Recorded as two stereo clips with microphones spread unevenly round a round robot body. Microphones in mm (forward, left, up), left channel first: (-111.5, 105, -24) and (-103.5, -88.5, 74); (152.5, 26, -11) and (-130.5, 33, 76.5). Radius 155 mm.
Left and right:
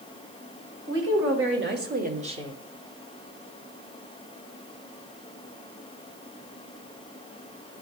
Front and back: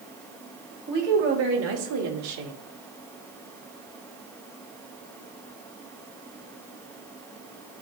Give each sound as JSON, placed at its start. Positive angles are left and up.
{"t": 0.9, "sound": "a woman speaking", "azimuth_deg": -120, "distance_m": 2.5}